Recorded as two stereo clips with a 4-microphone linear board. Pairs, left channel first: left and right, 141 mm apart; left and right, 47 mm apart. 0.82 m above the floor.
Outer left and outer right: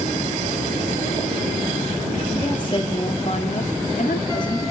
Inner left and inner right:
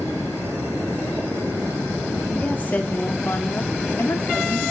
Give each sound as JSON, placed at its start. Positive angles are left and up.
{"t": 2.3, "sound": "a woman speaking", "side_deg": 30, "distance_m": 1.5}